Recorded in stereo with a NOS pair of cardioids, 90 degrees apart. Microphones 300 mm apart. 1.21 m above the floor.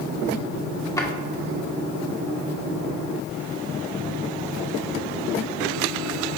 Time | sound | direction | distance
1.0 | a drawer | 10° left | 2.0 m